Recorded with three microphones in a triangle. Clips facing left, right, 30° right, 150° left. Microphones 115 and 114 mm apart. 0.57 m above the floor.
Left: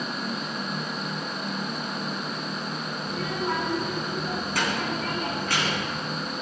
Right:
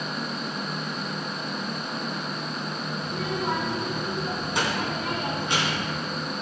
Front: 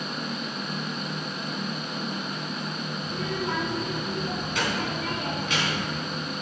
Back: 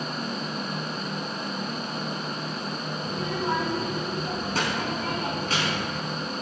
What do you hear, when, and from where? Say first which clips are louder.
3.0 s a child speaking: even, back 2 dB; 160° right, 4.5 m